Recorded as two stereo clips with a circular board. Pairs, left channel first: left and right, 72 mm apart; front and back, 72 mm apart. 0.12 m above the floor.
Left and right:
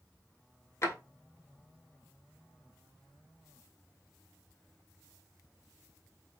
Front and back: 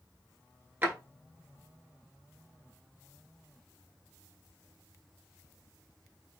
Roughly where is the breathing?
No breathing in this recording.